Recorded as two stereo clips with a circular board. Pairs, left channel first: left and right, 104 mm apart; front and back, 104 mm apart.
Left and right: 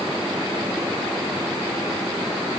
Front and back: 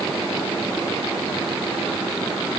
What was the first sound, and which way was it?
Only background noise.